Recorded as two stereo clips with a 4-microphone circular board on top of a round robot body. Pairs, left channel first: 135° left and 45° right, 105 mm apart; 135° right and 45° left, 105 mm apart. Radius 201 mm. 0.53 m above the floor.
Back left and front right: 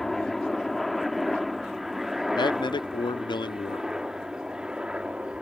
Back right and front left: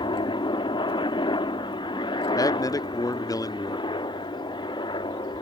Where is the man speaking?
175° left.